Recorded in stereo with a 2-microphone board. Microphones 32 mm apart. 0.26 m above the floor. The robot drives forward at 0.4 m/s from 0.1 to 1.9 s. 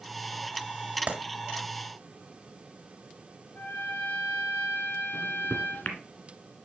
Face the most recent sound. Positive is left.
turn(degrees=70)  # may be behind; listen again after turning